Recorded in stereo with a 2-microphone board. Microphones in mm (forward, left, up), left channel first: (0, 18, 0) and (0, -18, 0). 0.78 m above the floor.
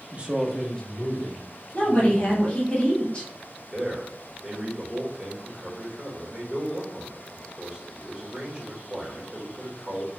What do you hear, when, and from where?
0.1 s a man speaking: 35° right (ahead or behind), 0.6 m; by 2.5 s 65° left (ahead or behind), 1.8 m
1.7 s a woman speaking: 30° left (ahead or behind), 1.3 m
3.7 s a man speaking: 25° right (ahead or behind), 1.1 m